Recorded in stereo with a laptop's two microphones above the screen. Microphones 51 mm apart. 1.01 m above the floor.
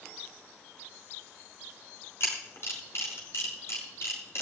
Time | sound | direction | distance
2.2 | a camera shutter | 55° left (ahead or behind) | 4.5 m